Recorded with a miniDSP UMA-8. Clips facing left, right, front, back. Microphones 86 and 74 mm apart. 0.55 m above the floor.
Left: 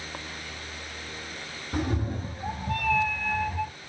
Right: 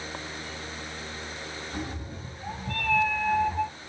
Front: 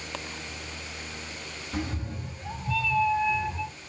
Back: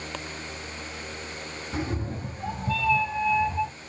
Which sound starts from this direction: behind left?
A cat meowing, at 1.7 s.